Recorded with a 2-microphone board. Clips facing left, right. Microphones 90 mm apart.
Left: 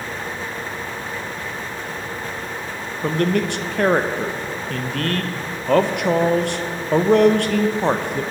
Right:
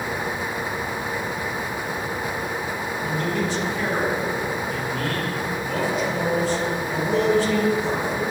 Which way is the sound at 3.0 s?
65° left (ahead or behind).